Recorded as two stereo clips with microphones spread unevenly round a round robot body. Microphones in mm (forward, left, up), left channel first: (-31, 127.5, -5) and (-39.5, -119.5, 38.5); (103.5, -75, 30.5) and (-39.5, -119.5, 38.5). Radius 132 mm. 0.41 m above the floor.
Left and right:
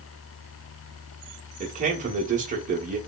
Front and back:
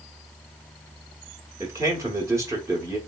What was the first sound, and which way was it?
A man speaking, 120° right.